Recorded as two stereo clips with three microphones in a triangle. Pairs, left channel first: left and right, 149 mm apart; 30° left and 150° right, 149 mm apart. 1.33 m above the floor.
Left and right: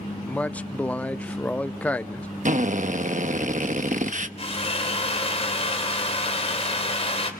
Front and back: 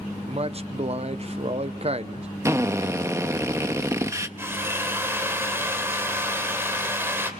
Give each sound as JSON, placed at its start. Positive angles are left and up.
{"t": 0.3, "sound": "a man speaking", "azimuth_deg": 170, "distance_m": 0.8}
{"t": 2.5, "sound": "a drill", "azimuth_deg": -80, "distance_m": 0.9}
{"t": 4.4, "sound": "a drill", "azimuth_deg": 135, "distance_m": 3.0}